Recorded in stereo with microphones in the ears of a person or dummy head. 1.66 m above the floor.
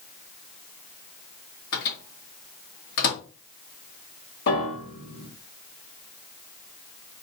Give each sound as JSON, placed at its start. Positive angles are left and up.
{"t": 1.7, "sound": "a microwave", "side_deg": 55, "distance_m": 1.2}
{"t": 4.5, "sound": "a piano", "side_deg": 60, "distance_m": 1.7}